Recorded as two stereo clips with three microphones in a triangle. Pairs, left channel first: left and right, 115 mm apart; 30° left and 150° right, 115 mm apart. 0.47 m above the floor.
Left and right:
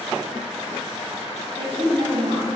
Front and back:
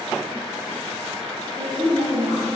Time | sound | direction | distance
1.6 | a woman speaking | 115° right | 2.5 m